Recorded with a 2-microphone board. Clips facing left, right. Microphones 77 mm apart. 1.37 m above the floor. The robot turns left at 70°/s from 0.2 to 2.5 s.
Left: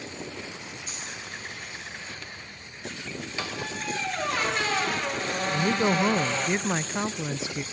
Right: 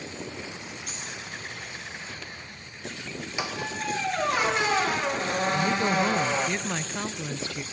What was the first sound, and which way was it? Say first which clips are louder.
A dropped coin: even; 55° right (ahead or behind).